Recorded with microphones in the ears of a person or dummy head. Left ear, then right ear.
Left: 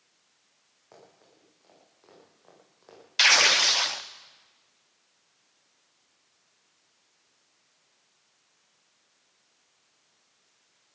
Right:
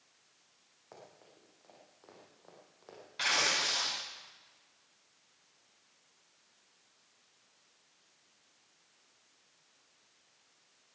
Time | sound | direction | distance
0.9 | running footsteps | 5° right (ahead or behind) | 6 m
3.2 | tearing paper | 40° left (ahead or behind) | 0.7 m